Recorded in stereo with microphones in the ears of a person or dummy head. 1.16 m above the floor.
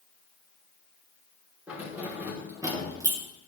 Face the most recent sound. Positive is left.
turn(degrees=-20)  # may be behind; listen again after turning